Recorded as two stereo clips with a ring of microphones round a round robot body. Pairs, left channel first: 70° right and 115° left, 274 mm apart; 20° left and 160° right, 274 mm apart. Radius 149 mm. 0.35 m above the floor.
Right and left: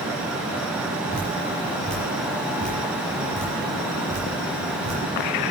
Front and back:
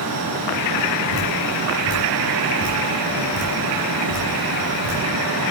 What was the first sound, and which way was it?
Dripping, 20° left.